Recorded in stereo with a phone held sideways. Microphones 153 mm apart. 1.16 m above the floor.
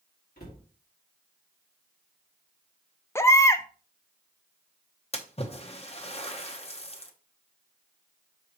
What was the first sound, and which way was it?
A cupboard door, 85° left.